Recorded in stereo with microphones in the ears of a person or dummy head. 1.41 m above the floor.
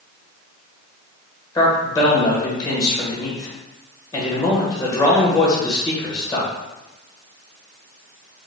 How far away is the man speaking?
About 1.3 m.